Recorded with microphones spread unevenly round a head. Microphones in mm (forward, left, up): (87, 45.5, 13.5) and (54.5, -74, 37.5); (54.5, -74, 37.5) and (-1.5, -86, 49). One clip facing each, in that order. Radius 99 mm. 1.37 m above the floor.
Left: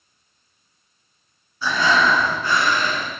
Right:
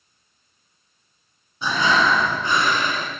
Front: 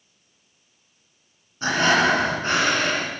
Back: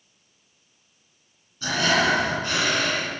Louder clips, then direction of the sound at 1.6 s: Left 1 dB, front 3 dB; 45° right.